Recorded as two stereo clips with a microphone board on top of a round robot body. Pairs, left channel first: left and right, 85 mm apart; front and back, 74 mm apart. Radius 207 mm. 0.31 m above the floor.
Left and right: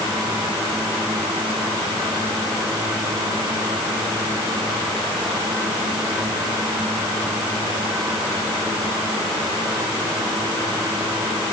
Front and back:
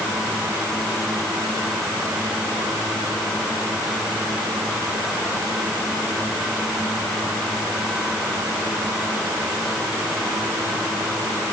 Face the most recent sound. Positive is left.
No sound to turn to.